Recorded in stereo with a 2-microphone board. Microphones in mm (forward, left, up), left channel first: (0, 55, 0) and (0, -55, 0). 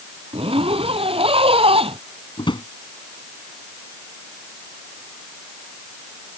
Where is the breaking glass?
No breaking glass in this recording.